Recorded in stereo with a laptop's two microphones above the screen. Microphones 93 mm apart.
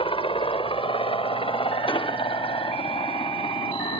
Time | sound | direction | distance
0.0 | a helicopter | 70° left (ahead or behind) | ?
1.9 | an explosion | 65° left (ahead or behind) | ?